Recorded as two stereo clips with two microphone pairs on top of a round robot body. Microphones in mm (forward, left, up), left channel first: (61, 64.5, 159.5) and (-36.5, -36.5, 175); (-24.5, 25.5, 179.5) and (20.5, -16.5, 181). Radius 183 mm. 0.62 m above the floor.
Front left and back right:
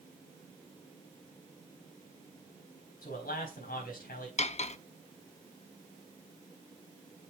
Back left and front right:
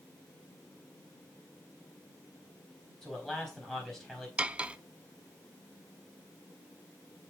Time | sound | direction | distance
3.0 | a man speaking | 55° left | 4 m
4.4 | cutlery clinking | 30° left | 0.5 m